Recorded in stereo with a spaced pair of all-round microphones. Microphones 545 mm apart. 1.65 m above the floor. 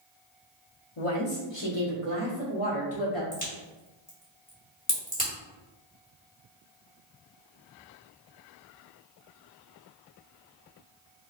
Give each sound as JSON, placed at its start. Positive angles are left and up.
{"t": 1.0, "sound": "a woman speaking", "side_deg": 65, "distance_m": 0.8}
{"t": 3.3, "sound": "a crack", "side_deg": 15, "distance_m": 1.5}